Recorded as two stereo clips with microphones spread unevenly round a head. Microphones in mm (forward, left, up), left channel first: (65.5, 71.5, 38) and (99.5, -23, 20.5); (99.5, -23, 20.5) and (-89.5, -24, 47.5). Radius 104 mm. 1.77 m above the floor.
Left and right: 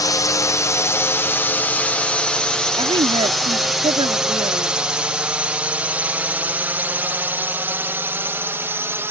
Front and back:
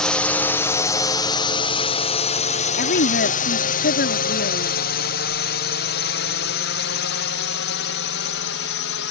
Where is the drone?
70° left; by 9.1 s 5° right.